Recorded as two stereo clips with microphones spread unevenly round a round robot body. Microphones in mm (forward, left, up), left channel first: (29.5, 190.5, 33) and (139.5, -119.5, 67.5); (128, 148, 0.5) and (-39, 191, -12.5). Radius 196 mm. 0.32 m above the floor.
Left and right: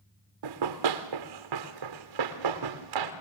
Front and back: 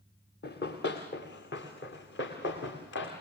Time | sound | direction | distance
0.4 | running footsteps | 70° right | 1.9 m